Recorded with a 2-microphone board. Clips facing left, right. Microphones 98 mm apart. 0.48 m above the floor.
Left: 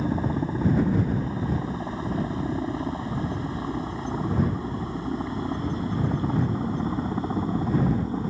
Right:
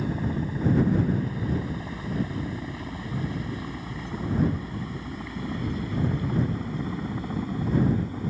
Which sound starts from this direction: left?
A helicopter, at 0.0 s.